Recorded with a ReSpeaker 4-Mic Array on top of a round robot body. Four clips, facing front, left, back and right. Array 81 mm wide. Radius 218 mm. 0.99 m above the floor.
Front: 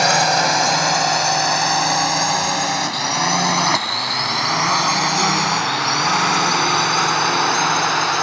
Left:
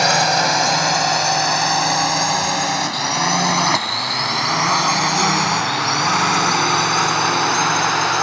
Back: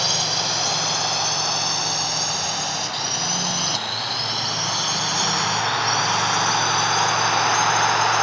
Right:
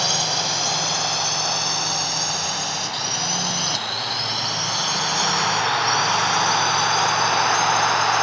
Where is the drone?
40° left; by 8.2 s 50° left.